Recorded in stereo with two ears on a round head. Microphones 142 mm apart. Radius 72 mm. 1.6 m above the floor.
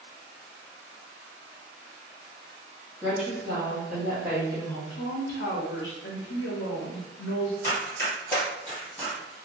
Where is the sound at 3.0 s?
10° right (ahead or behind), 0.9 m.